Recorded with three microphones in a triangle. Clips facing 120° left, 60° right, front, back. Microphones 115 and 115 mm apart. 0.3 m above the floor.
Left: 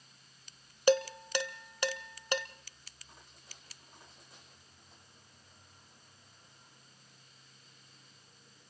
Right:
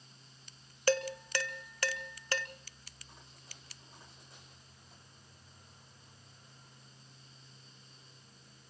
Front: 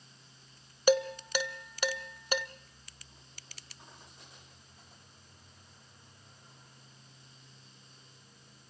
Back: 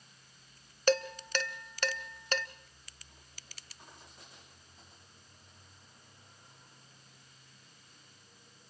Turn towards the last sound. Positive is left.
turn(degrees=70)